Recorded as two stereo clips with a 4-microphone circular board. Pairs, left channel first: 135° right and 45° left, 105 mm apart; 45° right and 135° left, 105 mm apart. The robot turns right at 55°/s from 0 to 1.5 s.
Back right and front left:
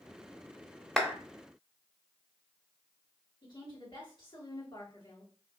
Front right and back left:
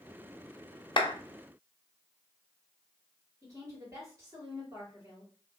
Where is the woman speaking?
170° right, 2.5 m.